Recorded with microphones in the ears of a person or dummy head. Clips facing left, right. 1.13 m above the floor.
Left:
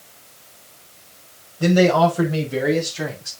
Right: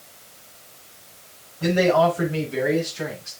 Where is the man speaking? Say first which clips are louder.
Left 3 dB; 55° left (ahead or behind), 5.5 m; by 3.3 s 65° left (ahead or behind), 6 m.